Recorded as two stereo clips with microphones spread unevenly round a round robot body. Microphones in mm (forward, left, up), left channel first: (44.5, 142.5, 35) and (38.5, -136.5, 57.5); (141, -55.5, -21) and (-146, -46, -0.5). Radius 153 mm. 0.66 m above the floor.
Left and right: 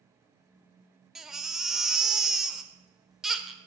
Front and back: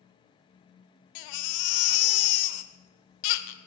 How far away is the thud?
No thud in this recording.